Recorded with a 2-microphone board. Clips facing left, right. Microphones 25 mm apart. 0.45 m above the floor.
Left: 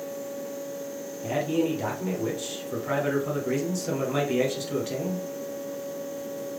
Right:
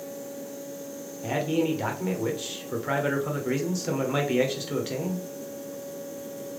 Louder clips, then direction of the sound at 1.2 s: Even; 20° right (ahead or behind).